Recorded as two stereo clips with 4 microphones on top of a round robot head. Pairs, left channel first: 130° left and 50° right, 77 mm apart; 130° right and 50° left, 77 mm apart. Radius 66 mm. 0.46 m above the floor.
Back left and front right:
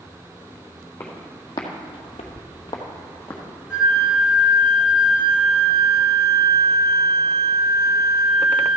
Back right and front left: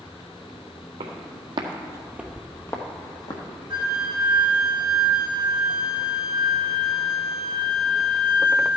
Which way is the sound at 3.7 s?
30° left.